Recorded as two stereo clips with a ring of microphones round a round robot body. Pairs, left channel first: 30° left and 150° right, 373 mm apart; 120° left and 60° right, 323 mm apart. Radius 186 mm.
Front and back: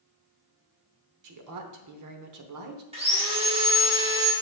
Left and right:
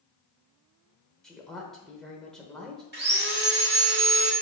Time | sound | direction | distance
1.2 | a woman speaking | 150° right | 1.0 m
2.9 | sawing | 90° right | 1.6 m